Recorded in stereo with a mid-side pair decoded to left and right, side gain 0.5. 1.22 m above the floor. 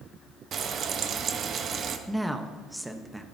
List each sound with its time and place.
0.5 s frying: 50° right, 1.1 m
2.1 s a woman speaking: 5° right, 1.1 m